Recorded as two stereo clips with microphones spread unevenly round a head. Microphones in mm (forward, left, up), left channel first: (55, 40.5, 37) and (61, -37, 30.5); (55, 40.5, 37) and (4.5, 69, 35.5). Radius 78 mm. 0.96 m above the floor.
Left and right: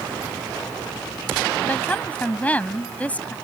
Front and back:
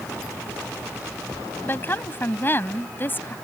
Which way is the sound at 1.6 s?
25° left.